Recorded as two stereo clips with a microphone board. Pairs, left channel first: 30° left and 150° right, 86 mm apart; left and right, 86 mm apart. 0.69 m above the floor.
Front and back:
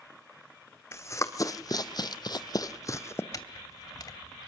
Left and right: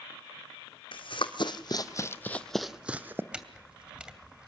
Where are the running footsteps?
85° left, 1.8 m; by 3.2 s 25° right, 1.5 m.